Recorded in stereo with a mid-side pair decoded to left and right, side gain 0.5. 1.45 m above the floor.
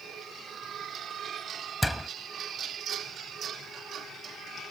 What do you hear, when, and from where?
1.8 s a door slam: 5° left